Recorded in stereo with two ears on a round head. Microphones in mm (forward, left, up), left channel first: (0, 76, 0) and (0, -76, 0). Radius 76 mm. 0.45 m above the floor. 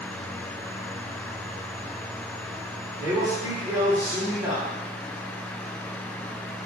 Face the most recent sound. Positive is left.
turn(degrees=-20)  # may be behind; listen again after turning